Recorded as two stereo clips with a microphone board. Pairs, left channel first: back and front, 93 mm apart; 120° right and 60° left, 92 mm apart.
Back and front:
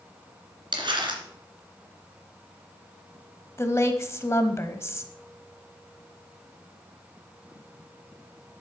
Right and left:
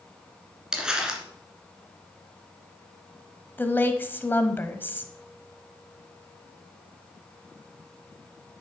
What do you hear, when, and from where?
0.7 s crumpling: 20° right, 2 m
3.6 s a woman speaking: 165° right, 1.1 m